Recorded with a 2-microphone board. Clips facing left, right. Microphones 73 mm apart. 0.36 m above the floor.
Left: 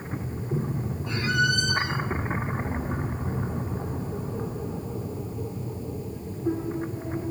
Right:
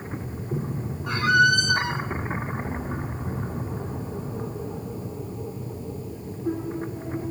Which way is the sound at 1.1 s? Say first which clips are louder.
Right 6 dB; 70° right (ahead or behind).